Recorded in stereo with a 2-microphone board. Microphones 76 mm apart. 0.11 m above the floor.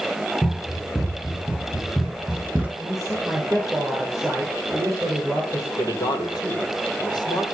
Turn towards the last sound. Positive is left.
turn(degrees=65)  # may be behind; listen again after turning